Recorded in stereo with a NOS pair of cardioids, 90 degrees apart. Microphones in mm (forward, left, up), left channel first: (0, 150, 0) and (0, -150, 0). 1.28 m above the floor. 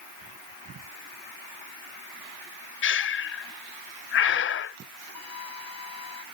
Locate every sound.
2.8 s breathing: 40° left
5.2 s a flute: 55° left